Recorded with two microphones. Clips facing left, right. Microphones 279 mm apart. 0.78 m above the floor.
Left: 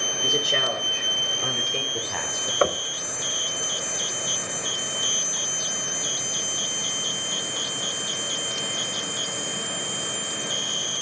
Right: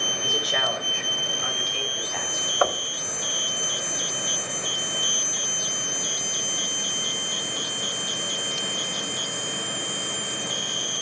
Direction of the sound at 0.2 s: 25° left (ahead or behind).